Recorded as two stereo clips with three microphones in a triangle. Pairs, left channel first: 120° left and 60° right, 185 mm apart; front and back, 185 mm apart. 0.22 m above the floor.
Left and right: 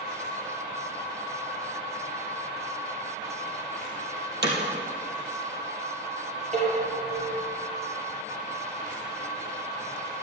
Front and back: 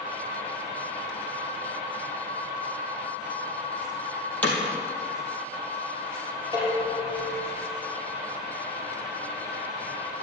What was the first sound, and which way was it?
Hammering, 80° right.